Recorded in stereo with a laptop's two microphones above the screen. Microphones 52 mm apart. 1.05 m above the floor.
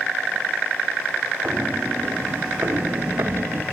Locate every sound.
1.4 s footsteps: 20° right (ahead or behind), 1.8 m; by 3.6 s 60° right (ahead or behind), 2.5 m